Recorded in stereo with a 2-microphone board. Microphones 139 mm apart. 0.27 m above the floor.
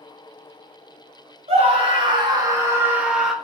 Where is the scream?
45° right (ahead or behind), 1.7 m; by 3.3 s centre (ahead or behind), 1.4 m.